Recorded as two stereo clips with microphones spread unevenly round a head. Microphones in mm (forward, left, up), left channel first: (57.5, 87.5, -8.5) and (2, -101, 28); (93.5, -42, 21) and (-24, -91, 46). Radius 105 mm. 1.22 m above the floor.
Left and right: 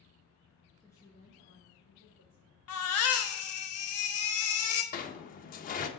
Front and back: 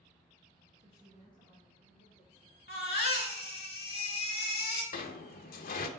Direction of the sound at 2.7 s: 70° left.